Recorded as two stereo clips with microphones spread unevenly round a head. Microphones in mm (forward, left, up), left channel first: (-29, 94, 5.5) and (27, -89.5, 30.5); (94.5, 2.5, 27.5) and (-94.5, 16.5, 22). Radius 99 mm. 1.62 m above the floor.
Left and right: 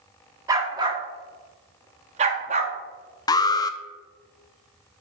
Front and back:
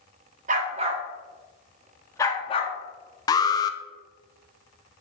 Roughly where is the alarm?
Ahead left.